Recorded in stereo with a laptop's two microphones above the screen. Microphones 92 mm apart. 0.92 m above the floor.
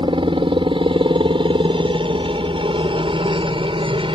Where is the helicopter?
65° right (ahead or behind); by 4.2 s 70° right (ahead or behind).